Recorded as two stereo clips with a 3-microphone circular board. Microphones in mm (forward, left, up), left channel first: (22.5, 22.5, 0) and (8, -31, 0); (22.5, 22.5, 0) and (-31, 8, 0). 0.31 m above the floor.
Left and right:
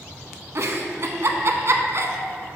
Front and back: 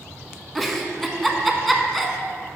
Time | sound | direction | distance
0.6 | a giggle | 75° right | 0.7 m